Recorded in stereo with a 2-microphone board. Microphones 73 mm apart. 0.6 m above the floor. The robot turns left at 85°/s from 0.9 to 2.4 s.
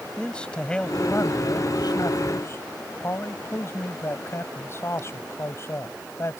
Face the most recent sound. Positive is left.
turn(degrees=40)